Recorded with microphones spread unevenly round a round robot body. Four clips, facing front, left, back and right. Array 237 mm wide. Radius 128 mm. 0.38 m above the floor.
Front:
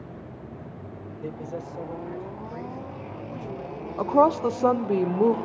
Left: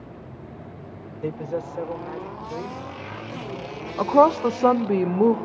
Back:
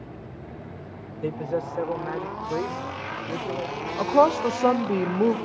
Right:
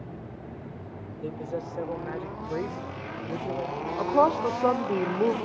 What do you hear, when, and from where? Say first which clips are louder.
1.2 s a man speaking: left 5 dB, back 7 dB; 130° left, 1.1 m; by 3.9 s 135° right, 1.9 m
4.0 s a woman speaking: left 6 dB, back 1 dB; 80° left, 0.8 m